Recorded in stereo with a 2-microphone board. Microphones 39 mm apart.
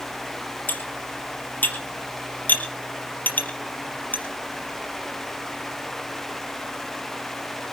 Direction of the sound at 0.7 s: 55° left (ahead or behind).